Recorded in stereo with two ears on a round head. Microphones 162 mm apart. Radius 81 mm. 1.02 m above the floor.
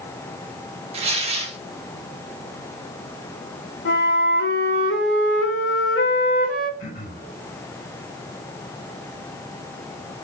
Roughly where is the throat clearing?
Left.